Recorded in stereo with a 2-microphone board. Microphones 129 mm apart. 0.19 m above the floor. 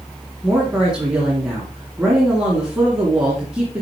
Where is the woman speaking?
5° right (ahead or behind), 2.5 m.